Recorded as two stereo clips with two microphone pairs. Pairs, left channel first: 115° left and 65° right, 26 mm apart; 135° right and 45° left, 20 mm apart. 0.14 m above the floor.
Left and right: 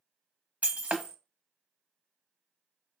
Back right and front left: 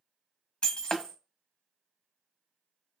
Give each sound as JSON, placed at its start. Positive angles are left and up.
{"t": 0.6, "sound": "breaking glass", "azimuth_deg": -80, "distance_m": 0.7}